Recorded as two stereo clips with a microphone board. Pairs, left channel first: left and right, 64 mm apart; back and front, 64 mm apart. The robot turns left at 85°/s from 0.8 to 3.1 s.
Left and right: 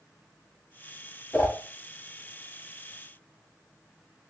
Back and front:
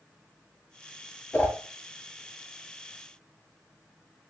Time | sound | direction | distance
1.3 | a whoosh | 140° left | 1.2 m